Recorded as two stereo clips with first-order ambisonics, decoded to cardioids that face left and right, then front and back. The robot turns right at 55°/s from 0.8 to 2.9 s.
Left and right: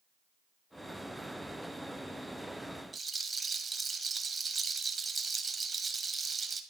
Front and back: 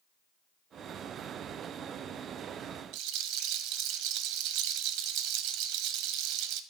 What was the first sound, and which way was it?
A rattle, 165° right.